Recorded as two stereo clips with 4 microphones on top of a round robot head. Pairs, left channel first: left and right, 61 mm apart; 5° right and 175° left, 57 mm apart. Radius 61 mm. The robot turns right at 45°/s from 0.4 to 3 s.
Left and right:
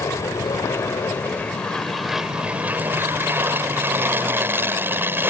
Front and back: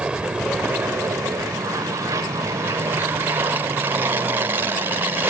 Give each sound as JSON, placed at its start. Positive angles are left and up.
{"t": 0.0, "sound": "an aircraft", "azimuth_deg": 110}